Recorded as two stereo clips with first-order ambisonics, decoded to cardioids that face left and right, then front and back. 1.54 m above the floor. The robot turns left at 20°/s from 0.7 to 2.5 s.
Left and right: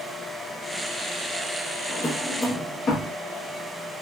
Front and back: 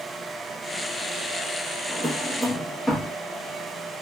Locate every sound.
1.9 s a drawer: 80° left, 0.9 m; by 3.1 s 70° left, 0.9 m